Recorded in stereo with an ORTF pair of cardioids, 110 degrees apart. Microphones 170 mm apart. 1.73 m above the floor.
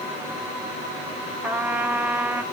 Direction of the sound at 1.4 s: 10° right.